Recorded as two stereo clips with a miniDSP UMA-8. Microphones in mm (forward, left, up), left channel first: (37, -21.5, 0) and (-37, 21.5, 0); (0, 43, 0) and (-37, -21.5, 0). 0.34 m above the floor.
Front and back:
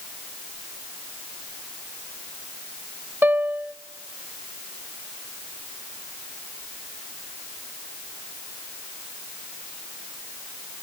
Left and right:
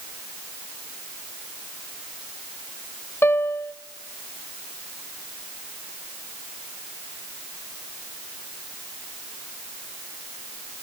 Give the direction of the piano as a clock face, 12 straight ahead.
9 o'clock.